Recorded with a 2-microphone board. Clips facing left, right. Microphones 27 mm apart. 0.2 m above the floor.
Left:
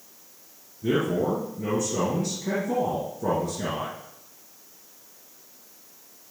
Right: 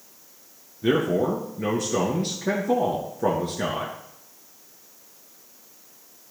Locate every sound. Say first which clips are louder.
0.8 s a man speaking: right 3 dB; 50° right (ahead or behind), 2.5 m